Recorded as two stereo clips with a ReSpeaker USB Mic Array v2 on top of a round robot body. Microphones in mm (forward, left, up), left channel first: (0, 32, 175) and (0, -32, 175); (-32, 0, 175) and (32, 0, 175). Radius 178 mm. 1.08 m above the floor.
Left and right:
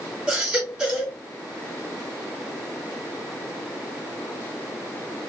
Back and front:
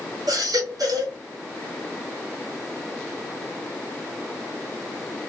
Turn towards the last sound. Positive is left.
turn(degrees=-15)